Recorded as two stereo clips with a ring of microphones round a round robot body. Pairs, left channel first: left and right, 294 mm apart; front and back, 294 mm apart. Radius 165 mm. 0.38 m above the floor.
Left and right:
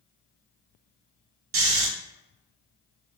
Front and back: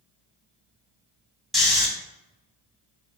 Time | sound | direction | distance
1.5 | snoring | 90° right | 0.9 m